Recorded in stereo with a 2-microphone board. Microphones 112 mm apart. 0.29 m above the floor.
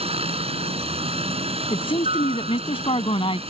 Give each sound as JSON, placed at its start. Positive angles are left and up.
{"t": 0.0, "sound": "a helicopter", "side_deg": -60}
{"t": 1.7, "sound": "a man speaking", "side_deg": 55}